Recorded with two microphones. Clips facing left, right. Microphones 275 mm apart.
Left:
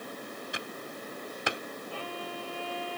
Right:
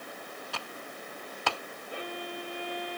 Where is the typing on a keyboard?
15° left (ahead or behind).